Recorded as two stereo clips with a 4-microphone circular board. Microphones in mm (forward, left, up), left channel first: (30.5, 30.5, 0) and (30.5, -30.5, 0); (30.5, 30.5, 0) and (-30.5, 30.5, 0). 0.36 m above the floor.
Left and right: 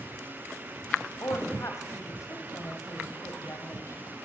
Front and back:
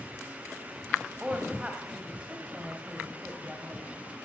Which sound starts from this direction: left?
A woman speaking, at 1.2 s.